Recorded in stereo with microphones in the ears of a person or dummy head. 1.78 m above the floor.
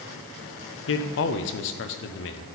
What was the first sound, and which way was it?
A man speaking, 65° left (ahead or behind).